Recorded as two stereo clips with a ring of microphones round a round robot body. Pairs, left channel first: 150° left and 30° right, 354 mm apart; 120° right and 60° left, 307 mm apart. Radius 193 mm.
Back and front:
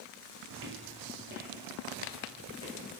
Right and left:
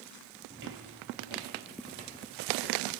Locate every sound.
0.5 s footsteps: 5° right, 0.7 m; by 3.0 s 45° left, 4 m